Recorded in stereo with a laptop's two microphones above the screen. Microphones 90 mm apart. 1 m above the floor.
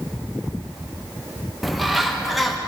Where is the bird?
Centre (ahead or behind), 0.5 m.